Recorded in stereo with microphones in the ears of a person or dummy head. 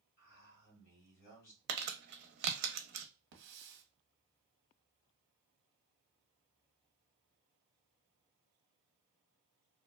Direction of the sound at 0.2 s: 55° left (ahead or behind).